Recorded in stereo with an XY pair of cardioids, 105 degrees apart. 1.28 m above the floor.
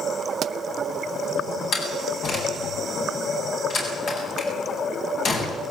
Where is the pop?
65° right, 0.7 m.